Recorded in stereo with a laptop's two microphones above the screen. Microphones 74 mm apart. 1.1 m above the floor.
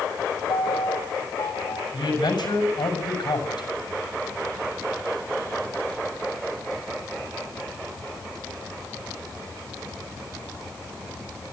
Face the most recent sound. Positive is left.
turn(degrees=75)  # may be behind; listen again after turning